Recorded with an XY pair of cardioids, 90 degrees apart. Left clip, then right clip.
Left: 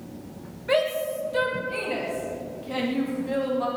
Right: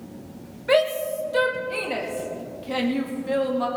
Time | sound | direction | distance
0.7 | a shout | 35° right | 3 m